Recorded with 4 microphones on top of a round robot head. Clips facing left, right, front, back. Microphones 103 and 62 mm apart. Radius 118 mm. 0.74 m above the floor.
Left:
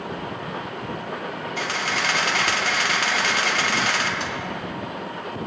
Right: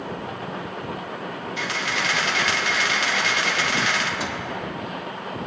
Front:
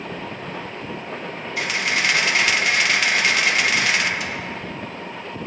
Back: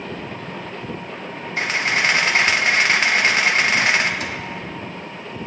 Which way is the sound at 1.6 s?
130° left.